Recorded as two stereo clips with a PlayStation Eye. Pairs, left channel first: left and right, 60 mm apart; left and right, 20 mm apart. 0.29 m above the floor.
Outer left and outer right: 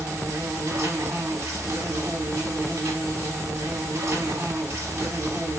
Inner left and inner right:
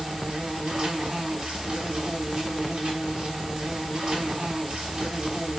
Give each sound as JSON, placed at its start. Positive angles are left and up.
{"t": 0.0, "sound": "an insect", "side_deg": -50, "distance_m": 1.2}